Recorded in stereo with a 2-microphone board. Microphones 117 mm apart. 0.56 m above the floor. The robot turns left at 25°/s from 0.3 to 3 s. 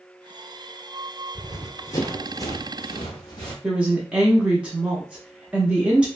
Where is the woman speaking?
10° right (ahead or behind), 0.7 m.